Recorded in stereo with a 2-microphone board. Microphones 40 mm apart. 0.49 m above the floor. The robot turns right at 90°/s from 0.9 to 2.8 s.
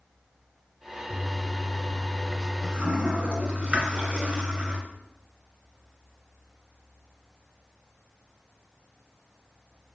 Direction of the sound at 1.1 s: 70° left (ahead or behind).